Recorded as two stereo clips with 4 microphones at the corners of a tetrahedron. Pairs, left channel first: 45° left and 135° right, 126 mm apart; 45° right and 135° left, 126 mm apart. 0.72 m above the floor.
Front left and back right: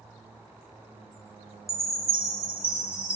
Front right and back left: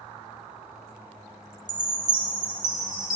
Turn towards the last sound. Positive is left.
turn(degrees=80)